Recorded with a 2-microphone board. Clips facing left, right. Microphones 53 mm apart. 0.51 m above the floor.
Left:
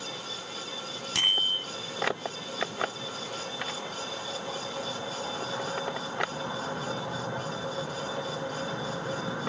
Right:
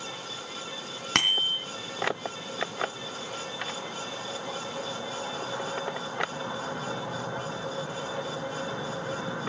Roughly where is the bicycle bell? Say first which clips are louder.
Right 1 dB; right.